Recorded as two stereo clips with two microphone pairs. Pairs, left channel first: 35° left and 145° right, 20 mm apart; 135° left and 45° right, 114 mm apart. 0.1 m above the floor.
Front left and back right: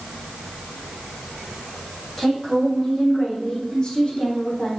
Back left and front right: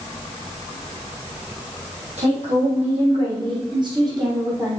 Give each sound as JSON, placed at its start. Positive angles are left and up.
{"t": 2.2, "sound": "a woman speaking", "azimuth_deg": -25, "distance_m": 5.0}